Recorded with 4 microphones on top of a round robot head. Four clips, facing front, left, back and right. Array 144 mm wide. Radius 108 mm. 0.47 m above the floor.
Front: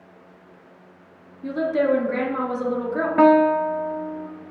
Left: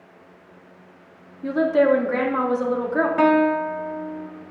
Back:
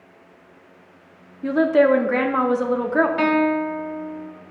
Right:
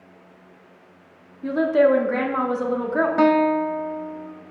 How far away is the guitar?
About 0.8 m.